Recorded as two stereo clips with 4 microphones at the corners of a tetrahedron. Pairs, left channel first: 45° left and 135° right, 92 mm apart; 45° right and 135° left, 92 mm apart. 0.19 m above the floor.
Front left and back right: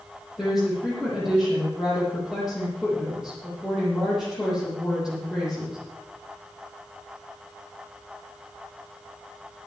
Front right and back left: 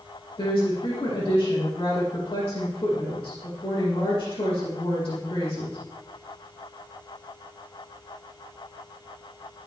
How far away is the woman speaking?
About 8.5 m.